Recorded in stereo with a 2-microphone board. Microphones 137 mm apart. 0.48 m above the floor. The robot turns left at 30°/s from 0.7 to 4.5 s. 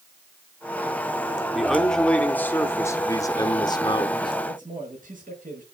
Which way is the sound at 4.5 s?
80° right.